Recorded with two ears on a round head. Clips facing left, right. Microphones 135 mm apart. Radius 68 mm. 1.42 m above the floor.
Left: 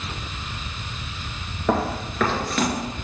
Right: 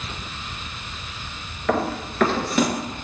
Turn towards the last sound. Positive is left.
turn(degrees=-15)  # may be behind; listen again after turning